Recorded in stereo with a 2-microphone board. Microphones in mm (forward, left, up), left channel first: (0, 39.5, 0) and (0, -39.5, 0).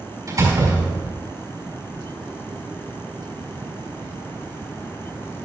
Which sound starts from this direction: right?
A door slam, at 0.3 s.